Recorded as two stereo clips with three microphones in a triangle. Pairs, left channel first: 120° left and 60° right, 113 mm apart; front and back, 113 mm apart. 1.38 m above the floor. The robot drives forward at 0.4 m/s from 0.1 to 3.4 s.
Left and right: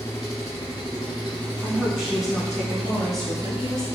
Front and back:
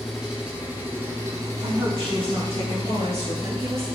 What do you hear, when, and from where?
0.0 s an engine running: 90° left, 1.0 m; by 4.0 s 160° left, 1.7 m
1.6 s a woman speaking: 145° right, 1.8 m; by 3.9 s 155° right, 2.5 m